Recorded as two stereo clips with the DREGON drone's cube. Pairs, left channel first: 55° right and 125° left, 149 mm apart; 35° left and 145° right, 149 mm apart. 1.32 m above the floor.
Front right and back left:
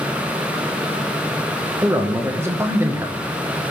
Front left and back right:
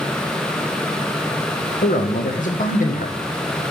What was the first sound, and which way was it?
A man speaking, 50° left.